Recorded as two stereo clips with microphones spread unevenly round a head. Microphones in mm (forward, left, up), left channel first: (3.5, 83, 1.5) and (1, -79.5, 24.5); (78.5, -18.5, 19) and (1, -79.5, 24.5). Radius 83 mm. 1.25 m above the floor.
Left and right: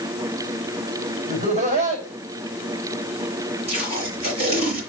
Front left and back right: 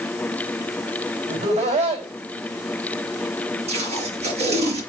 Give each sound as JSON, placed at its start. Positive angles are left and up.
{"t": 1.3, "sound": "laughter", "azimuth_deg": -140, "distance_m": 5.5}
{"t": 3.7, "sound": "tape being pulled", "azimuth_deg": -145, "distance_m": 5.0}